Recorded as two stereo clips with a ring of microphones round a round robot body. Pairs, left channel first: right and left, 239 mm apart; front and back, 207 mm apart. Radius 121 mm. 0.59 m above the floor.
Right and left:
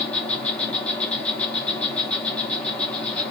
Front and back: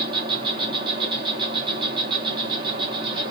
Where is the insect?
165° right, 1.5 m.